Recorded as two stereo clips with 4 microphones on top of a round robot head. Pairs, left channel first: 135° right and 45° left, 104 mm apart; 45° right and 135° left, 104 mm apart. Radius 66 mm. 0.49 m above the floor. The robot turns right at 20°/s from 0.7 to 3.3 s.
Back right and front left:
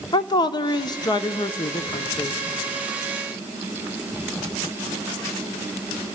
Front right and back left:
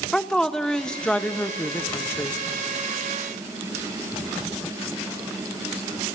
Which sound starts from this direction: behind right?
A woman speaking, at 0.1 s.